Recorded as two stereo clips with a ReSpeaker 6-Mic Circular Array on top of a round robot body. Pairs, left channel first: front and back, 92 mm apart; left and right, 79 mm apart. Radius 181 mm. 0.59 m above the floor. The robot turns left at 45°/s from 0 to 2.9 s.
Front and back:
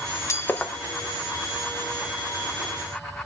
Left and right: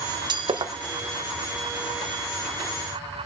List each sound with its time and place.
0.3 s breaking glass: 60° right, 0.8 m; by 0.7 s 80° right, 0.8 m